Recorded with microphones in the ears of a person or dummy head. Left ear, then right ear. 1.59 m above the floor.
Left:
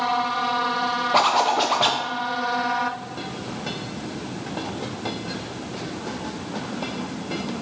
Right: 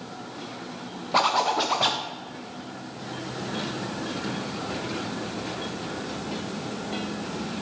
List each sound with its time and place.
1.1 s a zipper: 5° left (ahead or behind), 0.6 m